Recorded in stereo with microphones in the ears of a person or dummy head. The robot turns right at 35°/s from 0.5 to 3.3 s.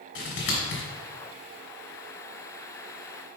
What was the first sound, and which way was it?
Scissors, 70° left (ahead or behind).